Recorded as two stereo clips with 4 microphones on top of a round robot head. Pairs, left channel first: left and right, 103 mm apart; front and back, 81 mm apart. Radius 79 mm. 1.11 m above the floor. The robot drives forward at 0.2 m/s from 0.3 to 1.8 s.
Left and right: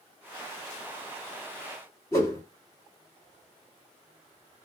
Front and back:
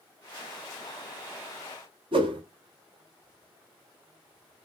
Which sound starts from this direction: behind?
A whoosh, at 2.1 s.